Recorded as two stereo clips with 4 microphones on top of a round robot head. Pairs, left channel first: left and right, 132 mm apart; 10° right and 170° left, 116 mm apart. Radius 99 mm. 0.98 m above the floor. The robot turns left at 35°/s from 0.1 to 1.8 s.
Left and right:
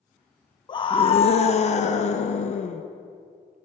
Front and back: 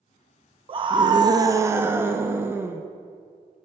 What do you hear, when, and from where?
0.7 s a scream: 140° left, 0.7 m; by 2.8 s 100° left, 0.7 m